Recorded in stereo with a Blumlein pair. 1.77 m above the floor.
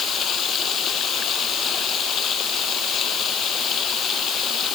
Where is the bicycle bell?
No bicycle bell in this recording.